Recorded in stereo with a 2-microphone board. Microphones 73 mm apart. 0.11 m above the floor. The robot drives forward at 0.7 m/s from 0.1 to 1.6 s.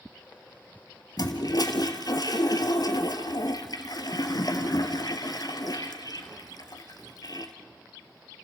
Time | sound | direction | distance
1.2 | a toilet flushing | 55° left (ahead or behind) | 1.5 m